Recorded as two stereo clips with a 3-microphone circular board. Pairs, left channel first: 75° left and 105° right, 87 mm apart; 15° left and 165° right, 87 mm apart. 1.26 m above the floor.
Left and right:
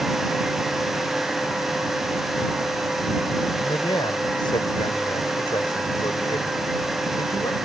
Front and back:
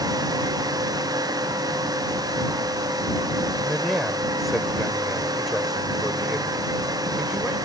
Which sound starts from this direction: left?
A man speaking, at 3.6 s.